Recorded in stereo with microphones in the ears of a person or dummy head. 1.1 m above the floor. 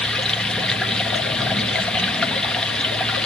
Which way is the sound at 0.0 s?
5° left (ahead or behind).